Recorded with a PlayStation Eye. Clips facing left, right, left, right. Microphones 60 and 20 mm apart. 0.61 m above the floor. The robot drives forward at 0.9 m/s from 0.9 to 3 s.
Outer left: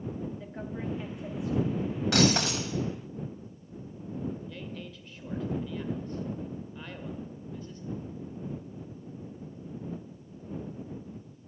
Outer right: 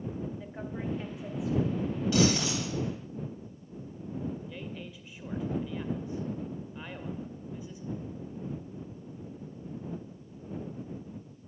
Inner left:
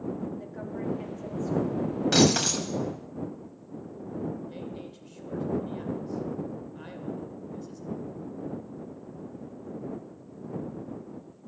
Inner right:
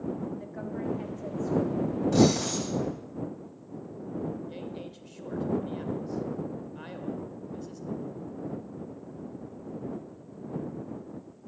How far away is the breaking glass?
About 2 m.